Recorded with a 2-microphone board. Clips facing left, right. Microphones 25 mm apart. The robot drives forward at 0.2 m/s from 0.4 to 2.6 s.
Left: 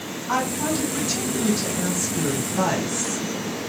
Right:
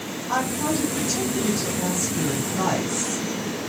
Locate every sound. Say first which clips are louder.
0.3 s a woman speaking: even; 30° left (ahead or behind), 1.9 m; by 3.2 s 35° left (ahead or behind), 1.8 m